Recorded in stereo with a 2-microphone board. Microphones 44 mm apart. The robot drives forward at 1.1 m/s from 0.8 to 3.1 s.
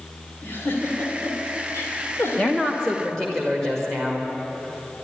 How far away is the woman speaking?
About 0.8 m.